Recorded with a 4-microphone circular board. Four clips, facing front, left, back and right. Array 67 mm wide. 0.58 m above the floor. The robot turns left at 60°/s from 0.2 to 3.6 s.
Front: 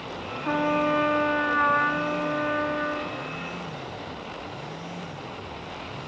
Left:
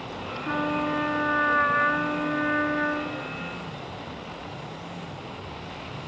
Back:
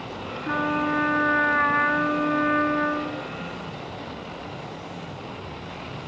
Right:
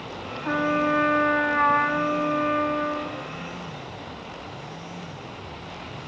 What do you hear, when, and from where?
0.4 s a trumpet: 45° right, 1.2 m; by 3.2 s 145° left, 1.2 m